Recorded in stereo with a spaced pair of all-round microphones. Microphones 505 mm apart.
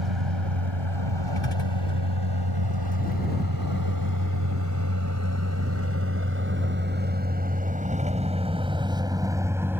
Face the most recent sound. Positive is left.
turn(degrees=-5)  # may be behind; listen again after turning